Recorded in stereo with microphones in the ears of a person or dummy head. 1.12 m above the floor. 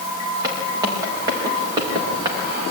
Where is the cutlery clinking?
I don't hear cutlery clinking.